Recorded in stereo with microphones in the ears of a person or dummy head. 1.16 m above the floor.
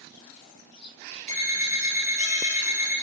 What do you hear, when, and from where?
1.3 s an alarm clock: 10° left (ahead or behind), 1.3 m